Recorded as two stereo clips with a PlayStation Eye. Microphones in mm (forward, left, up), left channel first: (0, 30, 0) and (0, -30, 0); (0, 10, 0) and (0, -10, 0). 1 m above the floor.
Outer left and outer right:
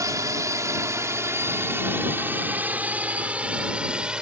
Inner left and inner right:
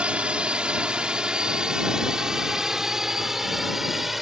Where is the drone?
70° right (ahead or behind); by 4.2 s 15° right (ahead or behind).